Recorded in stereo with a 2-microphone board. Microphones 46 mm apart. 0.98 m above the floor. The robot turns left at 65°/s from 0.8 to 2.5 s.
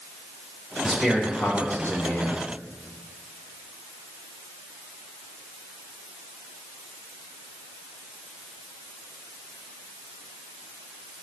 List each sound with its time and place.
0.8 s a man speaking: straight behind, 4 m; by 2.4 s 75° left, 4 m